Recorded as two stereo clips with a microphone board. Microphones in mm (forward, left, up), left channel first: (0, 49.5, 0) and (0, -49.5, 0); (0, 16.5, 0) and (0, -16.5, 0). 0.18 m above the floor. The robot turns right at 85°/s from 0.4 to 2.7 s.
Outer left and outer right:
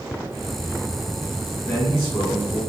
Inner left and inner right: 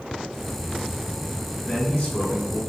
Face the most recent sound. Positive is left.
turn(degrees=110)